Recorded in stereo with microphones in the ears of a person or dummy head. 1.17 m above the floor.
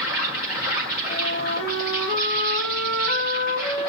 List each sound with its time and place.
0.0 s an insect: 55° left (ahead or behind), 5 m
1.1 s a flute: 70° left (ahead or behind), 3.5 m